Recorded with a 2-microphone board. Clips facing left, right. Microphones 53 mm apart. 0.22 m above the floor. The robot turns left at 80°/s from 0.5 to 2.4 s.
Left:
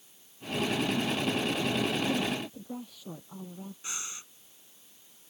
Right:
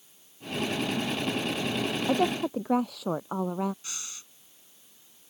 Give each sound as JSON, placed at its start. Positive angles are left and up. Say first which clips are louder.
{"t": 2.1, "sound": "a woman speaking", "louder": "right 6 dB", "side_deg": -45}
{"t": 3.8, "sound": "breathing", "louder": "left 2 dB", "side_deg": 20}